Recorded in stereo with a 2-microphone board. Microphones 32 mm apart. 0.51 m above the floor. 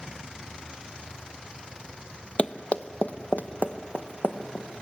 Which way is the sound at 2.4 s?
35° left (ahead or behind).